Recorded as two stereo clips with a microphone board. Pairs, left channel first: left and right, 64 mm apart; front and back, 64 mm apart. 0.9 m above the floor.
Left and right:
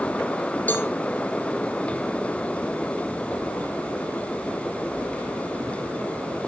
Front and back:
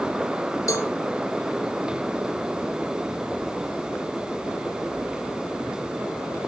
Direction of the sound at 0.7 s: 30° left.